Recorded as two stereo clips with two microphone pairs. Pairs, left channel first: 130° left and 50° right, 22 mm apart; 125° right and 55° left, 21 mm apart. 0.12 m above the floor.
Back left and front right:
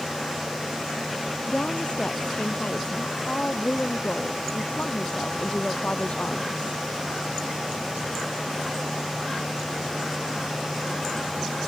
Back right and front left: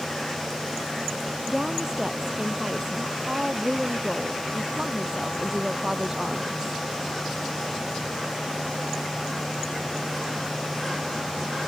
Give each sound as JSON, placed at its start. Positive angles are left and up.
{"t": 1.5, "sound": "a woman speaking", "azimuth_deg": 110}